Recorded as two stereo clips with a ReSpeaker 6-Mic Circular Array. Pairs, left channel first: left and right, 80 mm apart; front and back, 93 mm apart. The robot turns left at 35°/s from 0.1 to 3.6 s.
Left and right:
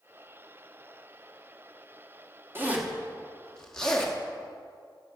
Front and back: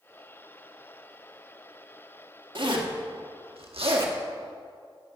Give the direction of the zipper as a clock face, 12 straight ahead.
5 o'clock.